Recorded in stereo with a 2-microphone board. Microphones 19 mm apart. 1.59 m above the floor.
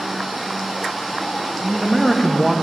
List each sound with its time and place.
1.6 s a man speaking: 25° left (ahead or behind), 0.7 m